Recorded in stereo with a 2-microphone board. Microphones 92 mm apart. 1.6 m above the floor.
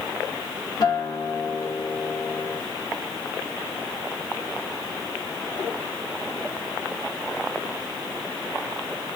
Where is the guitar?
45° left (ahead or behind), 1.6 m.